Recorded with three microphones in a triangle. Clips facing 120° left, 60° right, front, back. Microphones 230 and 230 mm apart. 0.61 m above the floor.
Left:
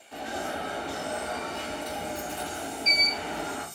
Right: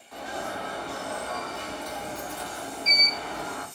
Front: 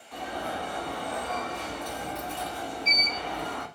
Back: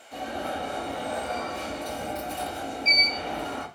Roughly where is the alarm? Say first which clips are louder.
Left 1 dB, back 2 dB; behind left.